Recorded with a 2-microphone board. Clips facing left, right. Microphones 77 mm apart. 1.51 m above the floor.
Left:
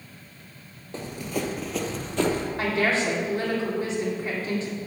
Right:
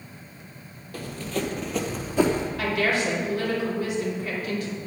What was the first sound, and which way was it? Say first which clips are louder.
Running footsteps: even; 25° left (ahead or behind).